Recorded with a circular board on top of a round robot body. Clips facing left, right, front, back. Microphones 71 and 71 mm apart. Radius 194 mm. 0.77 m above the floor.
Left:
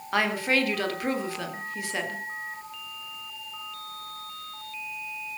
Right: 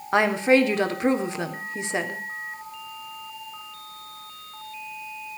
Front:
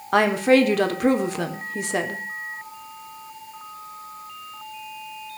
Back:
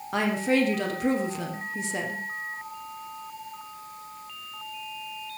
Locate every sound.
0.1 s a woman speaking: 25° right, 3 m